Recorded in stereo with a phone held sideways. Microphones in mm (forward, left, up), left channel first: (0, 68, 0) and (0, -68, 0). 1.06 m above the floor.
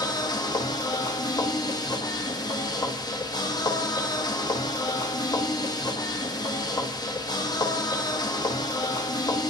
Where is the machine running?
30° left (ahead or behind), 0.8 m.